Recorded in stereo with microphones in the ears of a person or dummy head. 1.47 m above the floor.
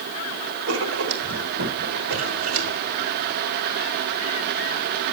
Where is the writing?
80° right, 2.5 m.